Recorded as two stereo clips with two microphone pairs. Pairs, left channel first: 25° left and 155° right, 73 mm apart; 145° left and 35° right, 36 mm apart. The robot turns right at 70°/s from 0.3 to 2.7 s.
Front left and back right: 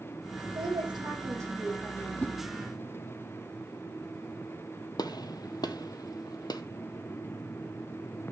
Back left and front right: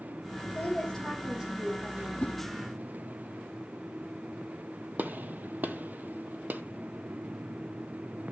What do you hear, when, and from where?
0.6 s a woman speaking: 170° right, 5.5 m; by 2.1 s 60° right, 5.5 m
2.2 s a whoosh: 90° left, 1.6 m; by 2.3 s 105° left, 1.6 m
5.0 s a gunshot: straight ahead, 0.9 m